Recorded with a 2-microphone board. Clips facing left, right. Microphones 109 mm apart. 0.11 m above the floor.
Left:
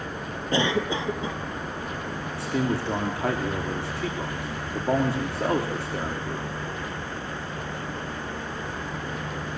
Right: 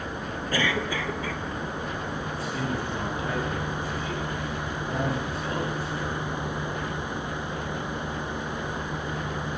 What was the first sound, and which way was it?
A cough, 25° left (ahead or behind).